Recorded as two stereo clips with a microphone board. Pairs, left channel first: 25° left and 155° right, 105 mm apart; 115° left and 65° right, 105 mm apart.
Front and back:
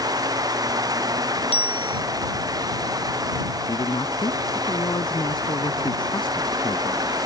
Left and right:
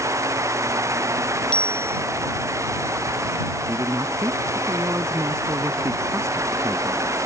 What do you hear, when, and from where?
1.5 s a bicycle bell: 35° left
3.7 s a man speaking: 10° right